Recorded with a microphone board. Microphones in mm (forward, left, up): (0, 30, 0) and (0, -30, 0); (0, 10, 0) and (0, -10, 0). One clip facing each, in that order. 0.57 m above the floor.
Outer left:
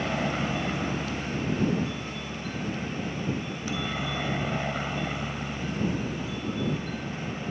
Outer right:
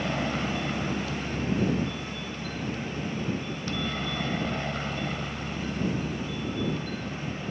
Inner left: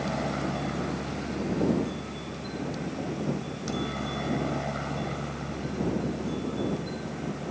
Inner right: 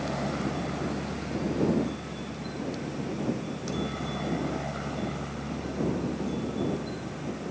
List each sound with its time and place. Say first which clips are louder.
0.0 s a helicopter: outer left 1 dB, inner left 1 dB; 10° left (ahead or behind)